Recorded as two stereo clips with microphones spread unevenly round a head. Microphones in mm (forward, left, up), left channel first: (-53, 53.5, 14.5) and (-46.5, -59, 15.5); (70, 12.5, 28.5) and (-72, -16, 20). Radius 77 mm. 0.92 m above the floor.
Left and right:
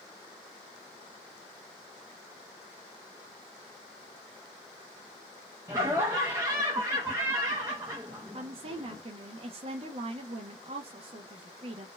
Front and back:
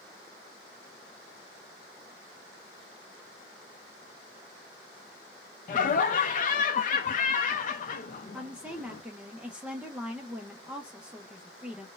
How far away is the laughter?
About 0.6 m.